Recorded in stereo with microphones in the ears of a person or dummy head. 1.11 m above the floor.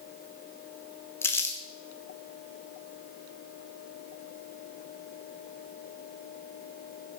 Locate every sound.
1.2 s crumpling: 10° left (ahead or behind), 1.2 m